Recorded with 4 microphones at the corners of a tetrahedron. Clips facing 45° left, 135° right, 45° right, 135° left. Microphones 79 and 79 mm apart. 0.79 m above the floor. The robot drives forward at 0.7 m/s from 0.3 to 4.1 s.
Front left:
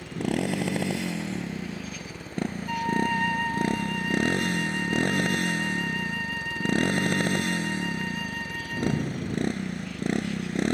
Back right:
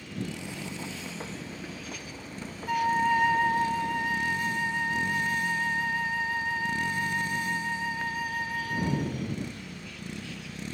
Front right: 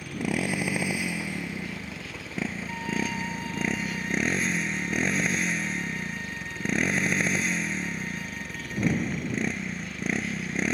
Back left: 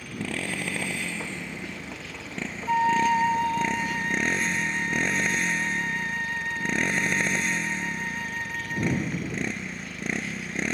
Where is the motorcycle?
30° left; by 10.7 s 45° left.